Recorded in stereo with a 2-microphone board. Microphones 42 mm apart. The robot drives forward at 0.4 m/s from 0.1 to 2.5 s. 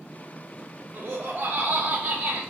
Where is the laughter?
55° right (ahead or behind), 0.6 m; by 2.4 s 35° right (ahead or behind), 0.8 m.